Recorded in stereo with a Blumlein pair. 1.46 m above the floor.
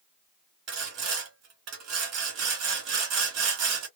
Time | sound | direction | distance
0.7 | sawing | 40° right | 2 m